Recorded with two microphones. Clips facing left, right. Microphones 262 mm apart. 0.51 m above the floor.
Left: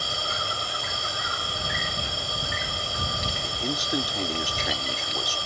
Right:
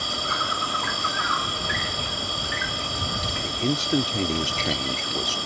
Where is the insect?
90° right.